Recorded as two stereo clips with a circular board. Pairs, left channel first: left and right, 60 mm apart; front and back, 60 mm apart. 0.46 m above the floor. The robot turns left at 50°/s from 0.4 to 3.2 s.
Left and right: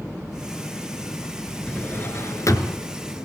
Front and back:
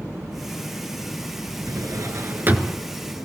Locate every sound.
1.7 s a drawer: 165° left, 2 m; by 2.8 s 105° left, 2 m